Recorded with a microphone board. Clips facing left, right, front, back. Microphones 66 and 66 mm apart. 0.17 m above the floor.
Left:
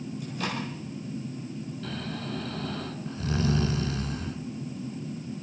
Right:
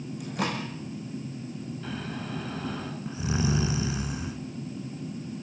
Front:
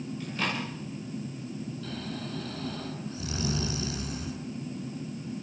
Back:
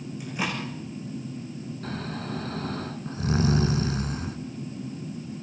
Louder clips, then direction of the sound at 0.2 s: Right 3 dB, back 2 dB; 105° right.